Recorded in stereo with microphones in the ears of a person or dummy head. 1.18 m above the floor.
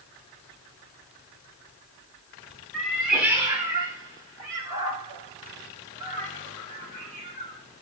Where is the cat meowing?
5° left (ahead or behind), 0.9 m; by 7.6 s 35° right (ahead or behind), 3 m.